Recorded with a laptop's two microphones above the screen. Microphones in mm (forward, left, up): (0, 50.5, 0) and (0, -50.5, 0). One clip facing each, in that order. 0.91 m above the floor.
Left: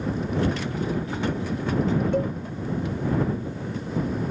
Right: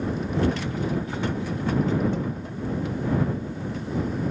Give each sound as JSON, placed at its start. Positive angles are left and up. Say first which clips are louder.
{"t": 2.1, "sound": "a cowbell", "louder": "left 4 dB", "side_deg": 65}